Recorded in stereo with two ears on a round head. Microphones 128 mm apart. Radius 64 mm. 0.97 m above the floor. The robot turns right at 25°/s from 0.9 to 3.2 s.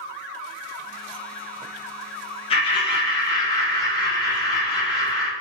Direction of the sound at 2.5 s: 40° left (ahead or behind).